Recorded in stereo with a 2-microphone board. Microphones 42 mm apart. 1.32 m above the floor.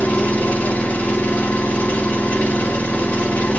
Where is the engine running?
35° left (ahead or behind), 0.8 m.